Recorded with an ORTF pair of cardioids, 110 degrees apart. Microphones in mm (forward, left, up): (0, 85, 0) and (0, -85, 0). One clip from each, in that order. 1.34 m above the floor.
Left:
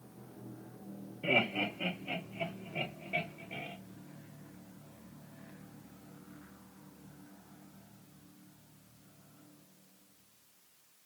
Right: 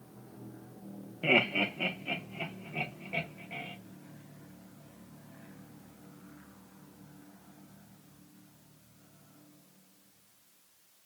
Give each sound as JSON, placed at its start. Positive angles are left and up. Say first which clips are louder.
{"t": 1.2, "sound": "laughter", "louder": "right 4 dB", "azimuth_deg": -60, "distance_m": 1.1}